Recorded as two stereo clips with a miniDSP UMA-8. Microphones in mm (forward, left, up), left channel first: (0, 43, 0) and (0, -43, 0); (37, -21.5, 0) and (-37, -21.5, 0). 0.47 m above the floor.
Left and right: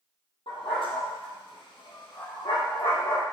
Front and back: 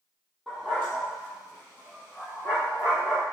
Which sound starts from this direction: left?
A dog barking, at 0.5 s.